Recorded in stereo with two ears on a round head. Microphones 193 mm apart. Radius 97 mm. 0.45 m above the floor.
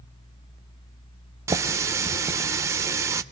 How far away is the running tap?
About 0.7 m.